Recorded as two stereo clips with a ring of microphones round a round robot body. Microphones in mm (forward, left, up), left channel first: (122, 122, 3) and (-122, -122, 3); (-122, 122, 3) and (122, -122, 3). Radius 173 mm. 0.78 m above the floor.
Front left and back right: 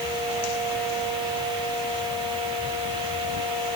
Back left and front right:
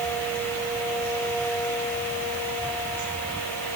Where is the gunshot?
I don't hear a gunshot.